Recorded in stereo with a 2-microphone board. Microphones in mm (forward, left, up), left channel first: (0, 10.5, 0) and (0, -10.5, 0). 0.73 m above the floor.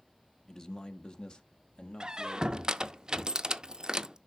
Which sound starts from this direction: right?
A squeak, at 2.0 s.